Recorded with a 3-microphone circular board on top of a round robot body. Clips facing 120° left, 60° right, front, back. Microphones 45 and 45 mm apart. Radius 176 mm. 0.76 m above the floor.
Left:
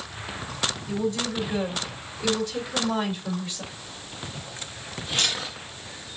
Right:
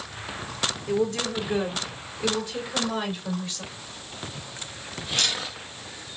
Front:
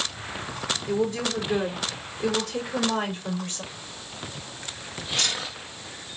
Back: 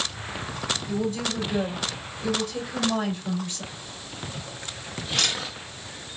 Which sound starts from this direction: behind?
A camera shutter, at 3.7 s.